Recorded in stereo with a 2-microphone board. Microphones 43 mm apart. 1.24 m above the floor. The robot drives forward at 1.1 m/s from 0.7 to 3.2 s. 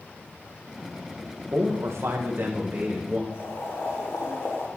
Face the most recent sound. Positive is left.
turn(degrees=75)  # may be behind; listen again after turning